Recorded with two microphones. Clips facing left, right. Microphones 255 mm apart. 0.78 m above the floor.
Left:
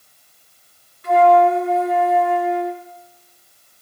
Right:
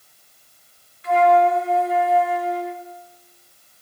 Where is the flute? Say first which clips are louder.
Left 3 dB; 55° left (ahead or behind), 2.5 m.